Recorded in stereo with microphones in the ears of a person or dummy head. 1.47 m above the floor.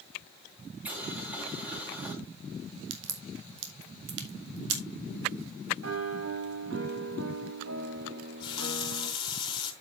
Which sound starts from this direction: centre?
Boiling, at 0.8 s.